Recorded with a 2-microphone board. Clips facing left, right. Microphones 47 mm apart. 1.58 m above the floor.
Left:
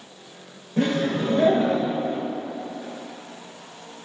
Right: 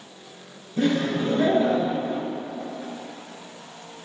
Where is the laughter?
60° left (ahead or behind), 2 m.